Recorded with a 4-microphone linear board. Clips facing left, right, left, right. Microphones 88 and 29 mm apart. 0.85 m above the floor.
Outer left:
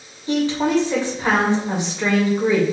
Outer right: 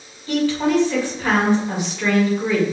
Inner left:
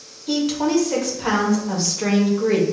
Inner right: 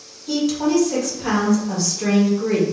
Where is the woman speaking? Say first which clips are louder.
Even, inner right 1 dB; 20° left (ahead or behind), 1.2 m.